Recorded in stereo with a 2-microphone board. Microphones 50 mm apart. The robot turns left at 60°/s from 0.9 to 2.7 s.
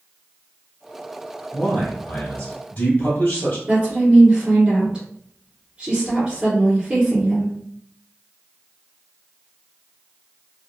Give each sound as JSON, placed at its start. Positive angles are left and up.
{"t": 1.5, "sound": "a man speaking", "side_deg": 15, "distance_m": 1.3}
{"t": 3.7, "sound": "a woman speaking", "side_deg": -20, "distance_m": 1.4}